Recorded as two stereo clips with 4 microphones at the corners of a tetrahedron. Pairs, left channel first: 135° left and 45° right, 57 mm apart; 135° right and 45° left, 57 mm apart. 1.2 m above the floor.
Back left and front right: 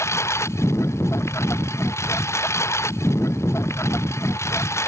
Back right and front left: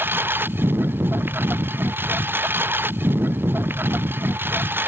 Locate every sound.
0.0 s a lawn mower: 100° left